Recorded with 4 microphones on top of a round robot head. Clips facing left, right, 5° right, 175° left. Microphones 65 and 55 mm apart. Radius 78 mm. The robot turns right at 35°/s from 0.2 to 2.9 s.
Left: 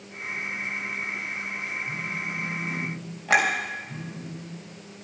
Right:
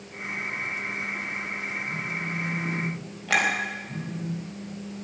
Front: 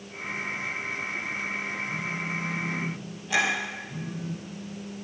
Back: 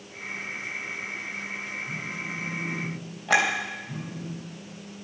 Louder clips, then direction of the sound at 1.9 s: Even, front 2 dB; 155° left.